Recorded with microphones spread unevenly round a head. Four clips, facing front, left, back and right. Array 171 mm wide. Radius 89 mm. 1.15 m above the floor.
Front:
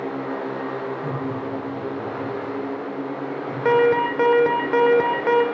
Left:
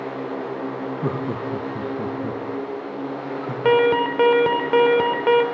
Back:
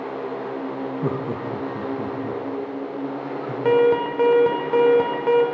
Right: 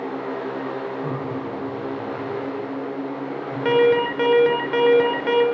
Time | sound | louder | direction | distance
1.0 | laughter | left 2 dB, back 1 dB | 130° left | 1.6 m
3.6 | an alarm | even, even | 80° left | 1.1 m